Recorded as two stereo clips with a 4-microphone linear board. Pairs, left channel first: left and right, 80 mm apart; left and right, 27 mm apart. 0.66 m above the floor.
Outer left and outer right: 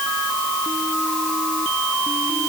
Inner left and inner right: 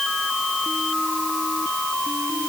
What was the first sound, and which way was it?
Only background noise.